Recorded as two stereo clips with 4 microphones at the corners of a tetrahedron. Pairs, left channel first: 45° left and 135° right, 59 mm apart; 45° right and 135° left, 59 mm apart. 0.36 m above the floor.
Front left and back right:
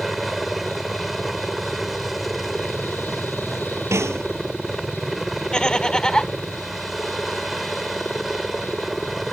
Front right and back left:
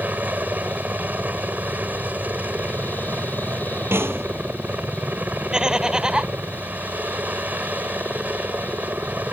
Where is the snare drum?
175° right.